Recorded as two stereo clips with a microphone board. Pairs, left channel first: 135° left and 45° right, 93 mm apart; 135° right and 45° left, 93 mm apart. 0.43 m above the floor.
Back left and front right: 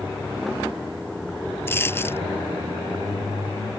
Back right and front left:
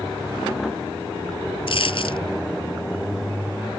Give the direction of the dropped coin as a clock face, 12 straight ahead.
5 o'clock.